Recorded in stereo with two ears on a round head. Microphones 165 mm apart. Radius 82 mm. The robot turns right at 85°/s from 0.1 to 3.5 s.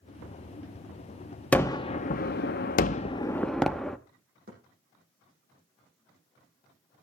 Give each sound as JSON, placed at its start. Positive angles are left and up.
{"t": 1.5, "sound": "a gunshot", "azimuth_deg": 10, "distance_m": 0.7}
{"t": 4.5, "sound": "a thud", "side_deg": -55, "distance_m": 7.0}